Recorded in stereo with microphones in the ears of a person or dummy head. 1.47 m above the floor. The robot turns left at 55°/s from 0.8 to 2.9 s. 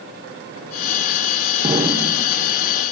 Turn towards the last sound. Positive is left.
turn(degrees=150)